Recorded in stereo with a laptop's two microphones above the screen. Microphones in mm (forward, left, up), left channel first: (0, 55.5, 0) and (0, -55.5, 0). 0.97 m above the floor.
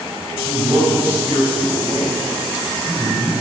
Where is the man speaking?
25° right (ahead or behind), 5.5 m.